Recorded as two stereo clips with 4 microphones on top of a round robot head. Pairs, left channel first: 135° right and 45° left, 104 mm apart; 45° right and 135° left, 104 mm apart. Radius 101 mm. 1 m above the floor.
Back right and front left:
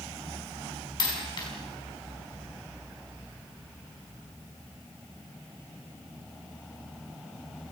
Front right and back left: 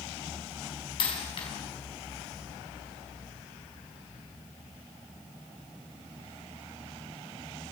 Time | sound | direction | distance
1.0 | a dropped coin | 85° right | 4.5 m